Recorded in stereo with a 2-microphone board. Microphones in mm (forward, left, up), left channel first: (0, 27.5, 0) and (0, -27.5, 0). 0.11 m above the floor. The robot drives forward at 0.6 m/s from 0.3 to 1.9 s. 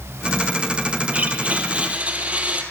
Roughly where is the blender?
Right.